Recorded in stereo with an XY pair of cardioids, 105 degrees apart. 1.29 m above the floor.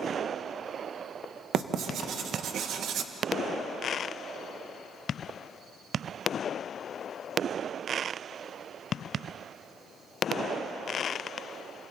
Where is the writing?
70° right, 1.5 m.